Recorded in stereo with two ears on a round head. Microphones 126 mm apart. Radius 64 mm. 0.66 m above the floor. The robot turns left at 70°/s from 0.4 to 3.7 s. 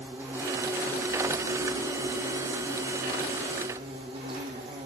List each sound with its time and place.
0.0 s an insect: 165° right, 3.5 m; by 4.9 s 35° right, 3.5 m